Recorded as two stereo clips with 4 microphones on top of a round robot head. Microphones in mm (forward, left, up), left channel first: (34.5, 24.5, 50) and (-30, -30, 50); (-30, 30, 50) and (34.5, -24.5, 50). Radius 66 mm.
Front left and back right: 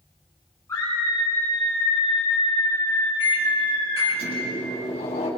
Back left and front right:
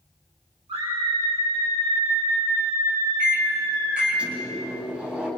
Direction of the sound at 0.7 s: 20° right.